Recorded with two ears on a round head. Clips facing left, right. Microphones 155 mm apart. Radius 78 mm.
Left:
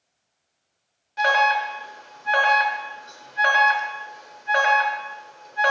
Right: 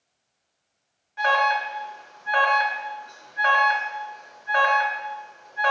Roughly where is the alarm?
Left.